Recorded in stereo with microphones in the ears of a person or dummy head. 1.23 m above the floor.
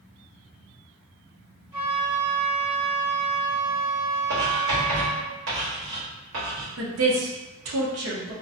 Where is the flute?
20° right (ahead or behind), 0.9 m.